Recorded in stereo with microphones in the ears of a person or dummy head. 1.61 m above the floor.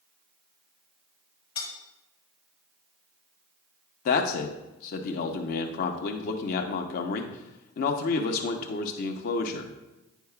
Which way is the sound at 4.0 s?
50° left (ahead or behind).